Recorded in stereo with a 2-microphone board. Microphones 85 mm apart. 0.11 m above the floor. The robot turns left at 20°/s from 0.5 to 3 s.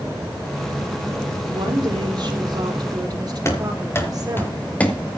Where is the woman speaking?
90° right, 4 m; by 4.5 s 120° right, 4 m.